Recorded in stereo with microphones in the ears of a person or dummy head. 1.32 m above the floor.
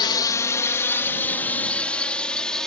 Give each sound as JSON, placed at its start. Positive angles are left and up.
{"t": 0.0, "sound": "a drone", "side_deg": 20}